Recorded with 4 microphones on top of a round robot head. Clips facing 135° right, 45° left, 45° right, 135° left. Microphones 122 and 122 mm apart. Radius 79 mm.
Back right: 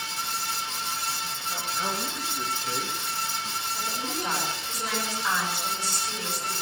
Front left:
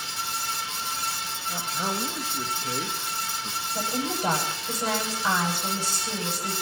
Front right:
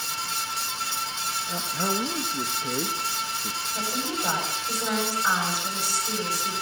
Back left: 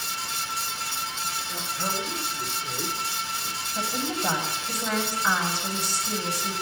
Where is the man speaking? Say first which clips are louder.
Front left 1 dB, front right 5 dB; 30° right, 1.4 m.